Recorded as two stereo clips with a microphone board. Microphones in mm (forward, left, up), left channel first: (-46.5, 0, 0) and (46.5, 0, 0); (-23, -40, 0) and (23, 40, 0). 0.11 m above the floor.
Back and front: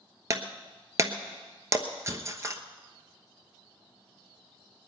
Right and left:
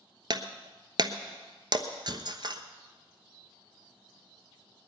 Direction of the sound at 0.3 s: 50° left.